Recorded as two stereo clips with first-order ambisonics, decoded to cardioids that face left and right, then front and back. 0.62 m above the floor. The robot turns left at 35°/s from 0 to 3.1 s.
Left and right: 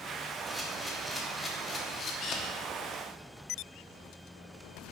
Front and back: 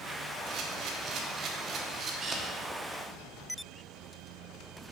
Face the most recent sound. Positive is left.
turn(degrees=100)